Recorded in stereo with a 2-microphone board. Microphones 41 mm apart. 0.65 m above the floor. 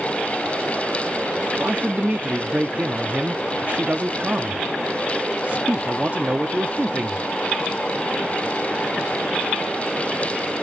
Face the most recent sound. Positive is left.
turn(degrees=-35)  # may be behind; listen again after turning